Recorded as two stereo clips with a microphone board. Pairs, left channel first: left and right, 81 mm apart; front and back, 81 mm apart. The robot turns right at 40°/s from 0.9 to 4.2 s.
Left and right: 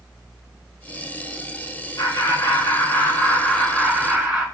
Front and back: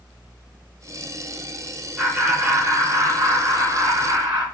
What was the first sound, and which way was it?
Laughter, 100° left.